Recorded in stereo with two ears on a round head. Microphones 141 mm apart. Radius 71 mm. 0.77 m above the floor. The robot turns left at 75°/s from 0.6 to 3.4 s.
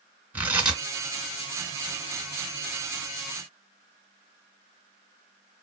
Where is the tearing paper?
10° right (ahead or behind), 2.5 m; by 0.8 s 5° left (ahead or behind), 2.5 m.